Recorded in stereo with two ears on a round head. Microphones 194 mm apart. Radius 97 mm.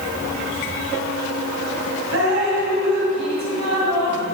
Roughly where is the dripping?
Right.